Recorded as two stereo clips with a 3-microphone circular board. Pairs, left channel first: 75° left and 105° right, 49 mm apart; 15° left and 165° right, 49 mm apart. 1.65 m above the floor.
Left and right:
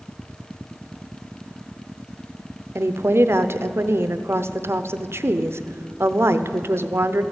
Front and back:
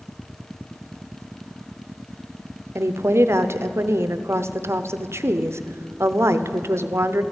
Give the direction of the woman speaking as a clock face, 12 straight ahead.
5 o'clock.